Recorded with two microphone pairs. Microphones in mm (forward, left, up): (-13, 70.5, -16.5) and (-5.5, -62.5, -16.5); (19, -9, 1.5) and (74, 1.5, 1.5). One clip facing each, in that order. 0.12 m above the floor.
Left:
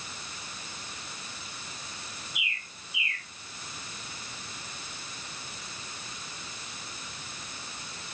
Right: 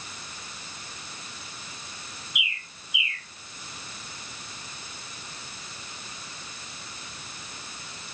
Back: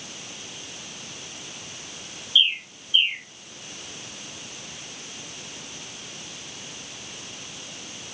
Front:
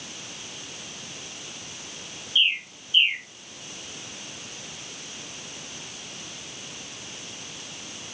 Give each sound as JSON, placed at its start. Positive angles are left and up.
{"t": 2.4, "sound": "a bird", "azimuth_deg": 45, "distance_m": 0.9}